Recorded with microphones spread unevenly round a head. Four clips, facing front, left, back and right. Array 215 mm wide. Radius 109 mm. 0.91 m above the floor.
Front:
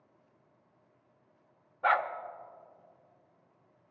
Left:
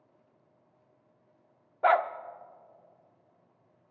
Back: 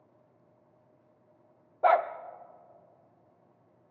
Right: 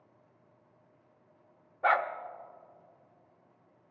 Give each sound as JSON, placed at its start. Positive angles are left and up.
{"t": 1.8, "sound": "a dog barking", "azimuth_deg": 155, "distance_m": 0.6}